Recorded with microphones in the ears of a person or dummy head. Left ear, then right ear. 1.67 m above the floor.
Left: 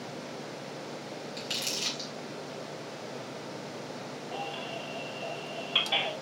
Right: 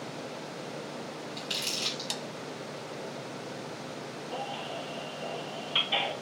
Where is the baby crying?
25° left (ahead or behind), 3.5 m.